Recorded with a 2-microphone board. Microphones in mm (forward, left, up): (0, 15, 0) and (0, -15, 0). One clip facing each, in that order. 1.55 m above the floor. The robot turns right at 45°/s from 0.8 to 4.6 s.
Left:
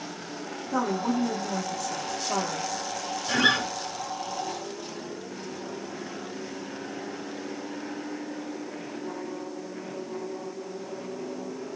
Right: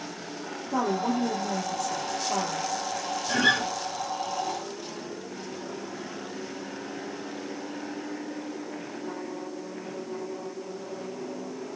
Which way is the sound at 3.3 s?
60° left (ahead or behind).